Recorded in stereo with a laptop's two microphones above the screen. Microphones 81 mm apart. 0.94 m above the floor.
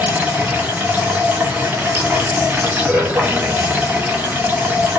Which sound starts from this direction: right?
Running water, at 0.0 s.